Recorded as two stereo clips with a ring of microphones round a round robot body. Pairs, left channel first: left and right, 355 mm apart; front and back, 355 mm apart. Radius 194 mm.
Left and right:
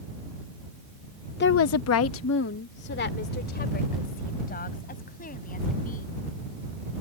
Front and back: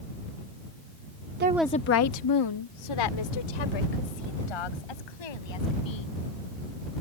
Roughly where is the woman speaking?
Behind left.